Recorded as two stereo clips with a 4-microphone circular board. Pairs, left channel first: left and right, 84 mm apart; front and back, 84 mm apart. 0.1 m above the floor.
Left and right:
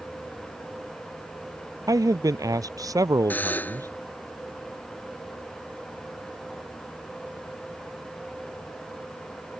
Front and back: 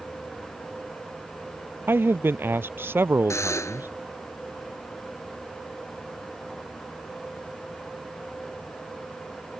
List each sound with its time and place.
1.9 s a man speaking: 120° right
3.3 s a buzzer: 30° left